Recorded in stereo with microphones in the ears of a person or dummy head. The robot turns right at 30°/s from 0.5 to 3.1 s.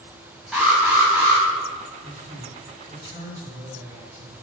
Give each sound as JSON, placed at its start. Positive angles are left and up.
{"t": 0.5, "sound": "an alarm", "side_deg": -5, "distance_m": 3.5}
{"t": 2.0, "sound": "a man speaking", "azimuth_deg": -60, "distance_m": 3.0}